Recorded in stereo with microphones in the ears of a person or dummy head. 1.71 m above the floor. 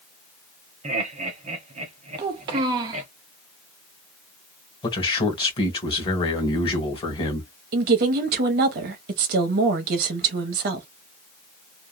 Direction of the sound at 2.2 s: 30° right (ahead or behind).